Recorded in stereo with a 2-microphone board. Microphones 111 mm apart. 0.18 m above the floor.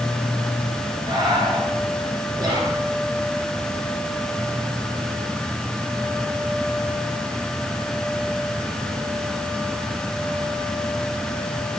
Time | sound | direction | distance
1.1 | breathing | 35° right (ahead or behind) | 2.5 m
2.4 | whispering | 40° right (ahead or behind) | 3.5 m